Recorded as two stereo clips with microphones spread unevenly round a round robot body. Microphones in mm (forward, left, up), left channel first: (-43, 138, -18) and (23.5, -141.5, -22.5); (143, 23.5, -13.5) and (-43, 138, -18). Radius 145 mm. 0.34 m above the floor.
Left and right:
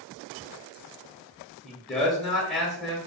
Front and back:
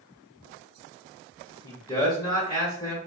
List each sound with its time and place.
1.6 s a man speaking: 15° left, 0.9 m